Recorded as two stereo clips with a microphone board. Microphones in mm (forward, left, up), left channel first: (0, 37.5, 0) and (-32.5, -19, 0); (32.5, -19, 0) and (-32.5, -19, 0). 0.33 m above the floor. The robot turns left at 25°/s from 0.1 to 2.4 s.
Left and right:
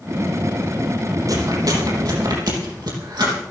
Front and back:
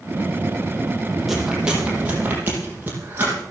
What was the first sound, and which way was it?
Chewing, 90° right.